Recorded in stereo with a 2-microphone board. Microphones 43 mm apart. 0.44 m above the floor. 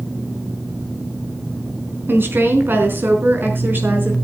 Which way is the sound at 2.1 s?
55° right (ahead or behind).